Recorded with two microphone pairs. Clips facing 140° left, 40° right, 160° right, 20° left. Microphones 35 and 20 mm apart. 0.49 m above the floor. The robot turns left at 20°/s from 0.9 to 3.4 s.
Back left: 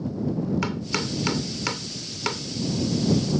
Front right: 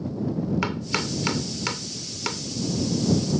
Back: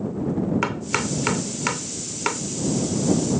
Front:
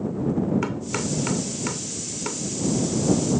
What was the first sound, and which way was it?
Chopping, 110° right.